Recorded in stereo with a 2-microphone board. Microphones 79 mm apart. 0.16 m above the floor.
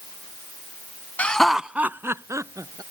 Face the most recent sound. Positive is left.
turn(degrees=-45)  # may be behind; listen again after turning